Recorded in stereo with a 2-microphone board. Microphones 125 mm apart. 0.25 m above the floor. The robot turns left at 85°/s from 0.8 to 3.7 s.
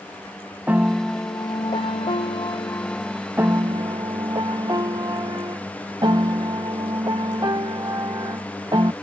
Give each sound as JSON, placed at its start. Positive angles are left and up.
{"t": 0.7, "sound": "a piano", "azimuth_deg": -165}